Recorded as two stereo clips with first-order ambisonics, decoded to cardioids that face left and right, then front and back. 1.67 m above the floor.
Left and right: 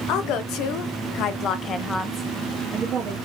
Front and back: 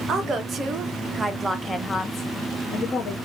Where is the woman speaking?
120° left, 1.2 m; by 3.2 s 40° right, 0.8 m.